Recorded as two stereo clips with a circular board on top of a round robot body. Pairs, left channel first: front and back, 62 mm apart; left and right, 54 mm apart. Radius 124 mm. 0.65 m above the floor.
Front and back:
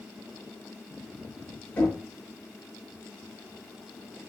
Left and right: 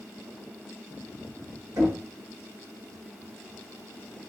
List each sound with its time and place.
1.8 s knocking: 65° right, 1.7 m